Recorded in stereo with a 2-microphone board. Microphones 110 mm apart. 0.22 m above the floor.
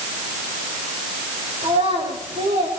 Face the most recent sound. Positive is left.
turn(degrees=-80)